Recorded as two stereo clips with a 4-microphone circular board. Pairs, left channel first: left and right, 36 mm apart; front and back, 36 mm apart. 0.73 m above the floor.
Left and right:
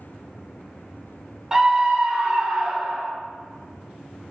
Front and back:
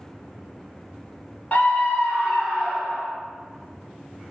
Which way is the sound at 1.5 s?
25° right.